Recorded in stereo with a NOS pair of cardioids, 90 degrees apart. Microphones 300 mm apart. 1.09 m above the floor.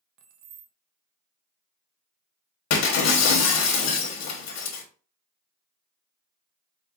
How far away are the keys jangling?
About 0.7 m.